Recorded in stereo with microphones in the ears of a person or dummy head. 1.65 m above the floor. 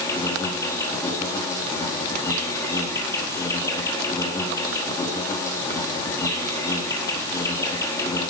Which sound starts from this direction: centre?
An insect, at 0.0 s.